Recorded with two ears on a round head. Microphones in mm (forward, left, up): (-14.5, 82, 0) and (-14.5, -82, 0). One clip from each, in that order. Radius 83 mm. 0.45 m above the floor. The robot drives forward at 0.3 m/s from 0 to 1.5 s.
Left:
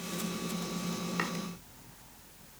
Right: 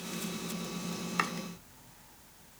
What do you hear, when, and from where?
1.2 s chopping: 40° right (ahead or behind), 1.2 m